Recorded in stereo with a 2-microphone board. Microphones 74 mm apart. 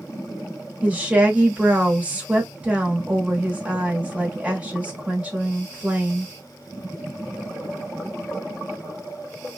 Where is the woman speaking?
20° right (ahead or behind), 1.1 m.